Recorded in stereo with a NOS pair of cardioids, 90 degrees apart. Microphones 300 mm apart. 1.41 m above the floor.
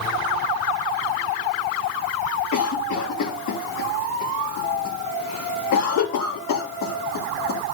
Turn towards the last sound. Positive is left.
turn(degrees=60)